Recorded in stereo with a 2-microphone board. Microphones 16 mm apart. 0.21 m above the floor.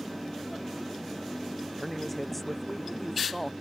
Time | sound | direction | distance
1.8 | a man speaking | centre (ahead or behind) | ?